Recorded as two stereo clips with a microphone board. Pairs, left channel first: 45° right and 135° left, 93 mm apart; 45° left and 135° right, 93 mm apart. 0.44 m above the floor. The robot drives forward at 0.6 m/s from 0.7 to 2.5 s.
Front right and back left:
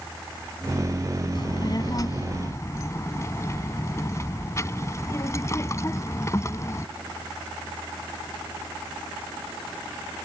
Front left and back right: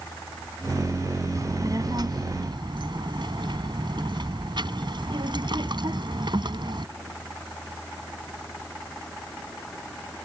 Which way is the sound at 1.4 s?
80° right.